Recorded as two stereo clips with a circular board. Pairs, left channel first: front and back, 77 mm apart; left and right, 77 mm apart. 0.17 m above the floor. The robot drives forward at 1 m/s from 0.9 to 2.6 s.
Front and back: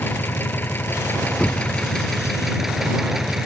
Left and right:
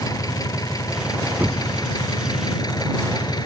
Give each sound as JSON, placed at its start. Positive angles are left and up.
{"t": 0.0, "sound": "an engine running", "azimuth_deg": 60}
{"t": 1.4, "sound": "knocking", "azimuth_deg": -65}